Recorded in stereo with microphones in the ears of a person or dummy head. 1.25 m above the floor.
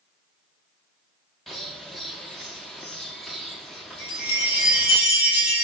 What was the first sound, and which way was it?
A bird, 5° right (ahead or behind).